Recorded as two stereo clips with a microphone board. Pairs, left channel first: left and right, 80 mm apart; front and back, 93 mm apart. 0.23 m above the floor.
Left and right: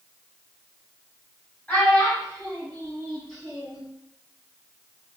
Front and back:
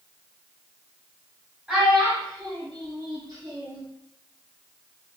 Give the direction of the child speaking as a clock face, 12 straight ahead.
8 o'clock.